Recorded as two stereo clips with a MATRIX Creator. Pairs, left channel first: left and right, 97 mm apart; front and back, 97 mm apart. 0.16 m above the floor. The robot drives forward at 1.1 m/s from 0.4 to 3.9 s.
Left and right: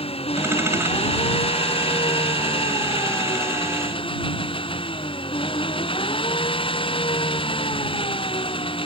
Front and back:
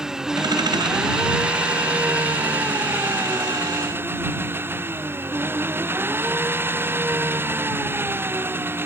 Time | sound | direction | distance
0.0 | an engine running | 95° left | ?